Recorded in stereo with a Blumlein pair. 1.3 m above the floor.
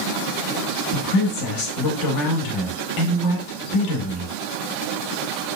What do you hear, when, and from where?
0.9 s a woman speaking: 40° left, 0.8 m